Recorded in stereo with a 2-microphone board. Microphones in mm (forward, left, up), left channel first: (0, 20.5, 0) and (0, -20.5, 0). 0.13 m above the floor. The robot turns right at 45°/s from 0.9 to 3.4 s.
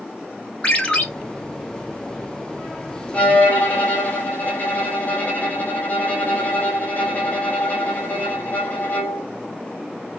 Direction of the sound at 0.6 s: 25° left (ahead or behind).